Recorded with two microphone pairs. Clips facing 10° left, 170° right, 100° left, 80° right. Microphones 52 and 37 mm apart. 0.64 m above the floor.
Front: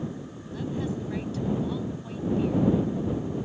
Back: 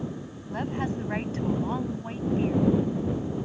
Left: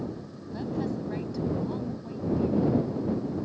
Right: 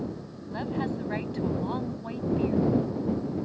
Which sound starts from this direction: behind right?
A woman speaking, at 0.5 s.